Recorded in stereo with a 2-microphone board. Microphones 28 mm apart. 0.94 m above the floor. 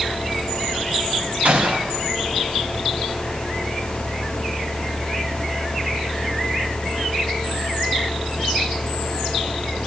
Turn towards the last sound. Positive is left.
turn(degrees=-65)  # may be behind; listen again after turning